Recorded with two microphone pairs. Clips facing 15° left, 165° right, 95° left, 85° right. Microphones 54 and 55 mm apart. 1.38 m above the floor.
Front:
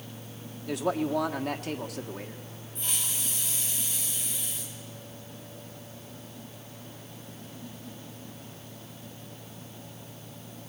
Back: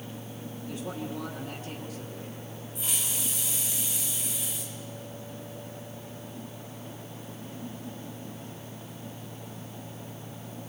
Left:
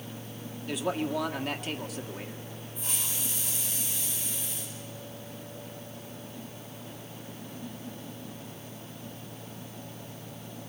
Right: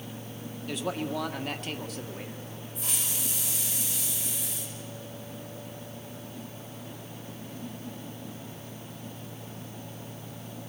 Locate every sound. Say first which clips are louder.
0.7 s a man speaking: front 9 dB, left 2 dB; 5° left, 1.6 m
2.8 s a hiss: even, right 1 dB; 80° right, 5 m